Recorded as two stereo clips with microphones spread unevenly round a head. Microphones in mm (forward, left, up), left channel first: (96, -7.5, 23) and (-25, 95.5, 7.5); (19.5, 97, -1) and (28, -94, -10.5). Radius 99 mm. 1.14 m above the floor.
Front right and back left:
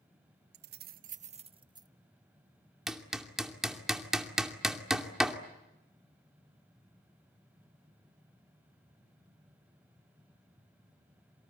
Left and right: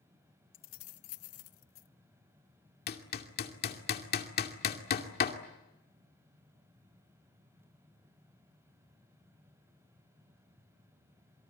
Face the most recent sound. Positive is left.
turn(degrees=50)